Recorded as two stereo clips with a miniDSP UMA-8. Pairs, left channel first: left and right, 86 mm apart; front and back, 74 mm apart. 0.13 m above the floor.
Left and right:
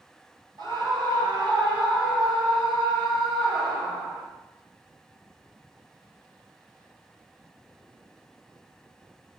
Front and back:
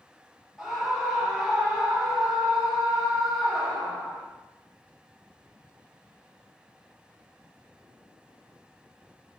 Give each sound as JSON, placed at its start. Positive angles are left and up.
{"t": 0.6, "sound": "a scream", "azimuth_deg": -95, "distance_m": 3.5}